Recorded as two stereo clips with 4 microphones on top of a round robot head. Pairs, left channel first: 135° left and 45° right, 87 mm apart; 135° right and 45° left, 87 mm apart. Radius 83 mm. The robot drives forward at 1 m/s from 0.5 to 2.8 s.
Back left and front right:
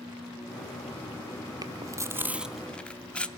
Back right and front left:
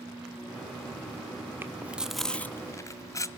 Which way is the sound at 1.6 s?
15° right.